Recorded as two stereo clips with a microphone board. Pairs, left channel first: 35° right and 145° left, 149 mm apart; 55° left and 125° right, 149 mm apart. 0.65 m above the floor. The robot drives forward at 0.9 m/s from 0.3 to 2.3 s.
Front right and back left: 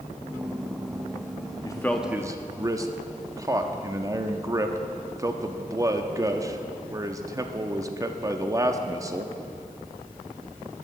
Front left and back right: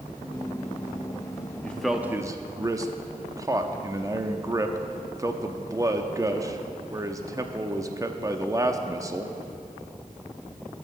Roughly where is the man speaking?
Ahead.